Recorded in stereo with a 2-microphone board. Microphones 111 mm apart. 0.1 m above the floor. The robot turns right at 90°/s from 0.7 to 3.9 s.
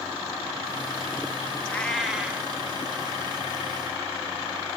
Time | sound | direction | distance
1.7 | a cat meowing | 15° left (ahead or behind) | 0.8 m